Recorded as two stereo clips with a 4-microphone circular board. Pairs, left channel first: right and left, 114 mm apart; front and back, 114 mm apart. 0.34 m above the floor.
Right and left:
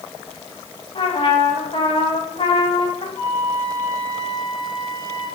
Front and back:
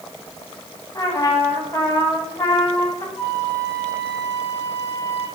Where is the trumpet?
55° right, 1.1 m.